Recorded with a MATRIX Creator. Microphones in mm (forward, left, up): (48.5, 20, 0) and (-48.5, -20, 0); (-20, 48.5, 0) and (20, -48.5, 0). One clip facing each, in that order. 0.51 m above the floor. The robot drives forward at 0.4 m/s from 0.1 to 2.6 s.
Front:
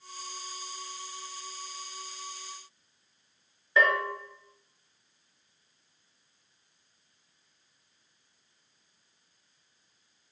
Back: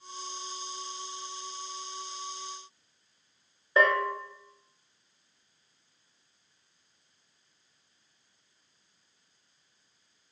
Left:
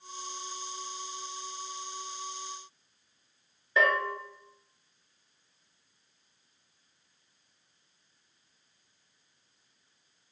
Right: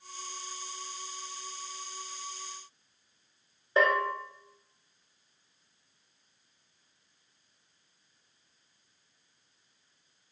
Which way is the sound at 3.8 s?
115° right.